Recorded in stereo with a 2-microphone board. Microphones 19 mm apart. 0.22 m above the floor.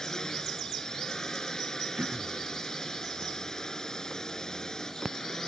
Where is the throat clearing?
65° right (ahead or behind).